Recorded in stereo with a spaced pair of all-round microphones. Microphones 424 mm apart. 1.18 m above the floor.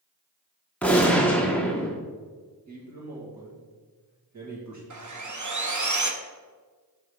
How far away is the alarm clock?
No alarm clock in this recording.